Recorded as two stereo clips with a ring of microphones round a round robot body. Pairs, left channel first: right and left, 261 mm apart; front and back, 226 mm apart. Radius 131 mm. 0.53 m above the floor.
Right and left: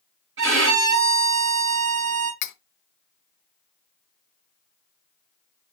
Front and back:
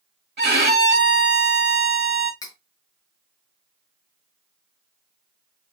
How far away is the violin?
About 2.5 m.